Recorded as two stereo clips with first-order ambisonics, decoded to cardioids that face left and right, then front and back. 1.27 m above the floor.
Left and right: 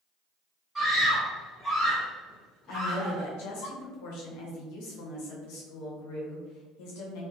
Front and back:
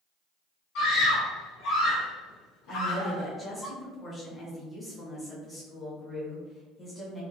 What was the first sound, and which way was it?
A scream, 10° right.